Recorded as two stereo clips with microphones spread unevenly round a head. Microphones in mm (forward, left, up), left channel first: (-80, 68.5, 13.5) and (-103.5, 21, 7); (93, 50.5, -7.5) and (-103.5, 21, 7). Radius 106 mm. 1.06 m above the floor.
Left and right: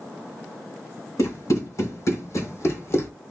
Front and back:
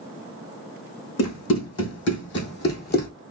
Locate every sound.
1.2 s running footsteps: 25° left, 3.5 m; by 3.1 s 45° left, 1.7 m